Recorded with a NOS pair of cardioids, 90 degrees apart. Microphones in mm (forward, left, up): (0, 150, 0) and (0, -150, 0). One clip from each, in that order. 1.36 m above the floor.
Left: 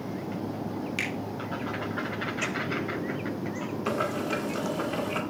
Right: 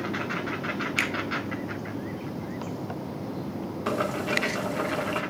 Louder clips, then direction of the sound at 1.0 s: Right 4 dB; 40° right.